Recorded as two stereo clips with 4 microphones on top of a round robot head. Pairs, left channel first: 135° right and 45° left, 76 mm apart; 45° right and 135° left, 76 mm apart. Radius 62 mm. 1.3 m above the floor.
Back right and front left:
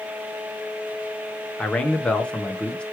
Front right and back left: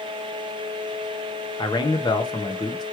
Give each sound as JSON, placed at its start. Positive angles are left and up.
{"t": 1.6, "sound": "a man speaking", "azimuth_deg": -60, "distance_m": 1.1}